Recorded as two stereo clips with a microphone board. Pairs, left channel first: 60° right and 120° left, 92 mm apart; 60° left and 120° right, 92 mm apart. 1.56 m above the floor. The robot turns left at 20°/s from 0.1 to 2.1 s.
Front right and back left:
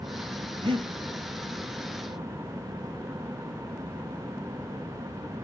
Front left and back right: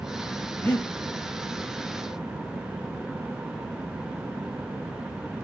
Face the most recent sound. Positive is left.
turn(degrees=105)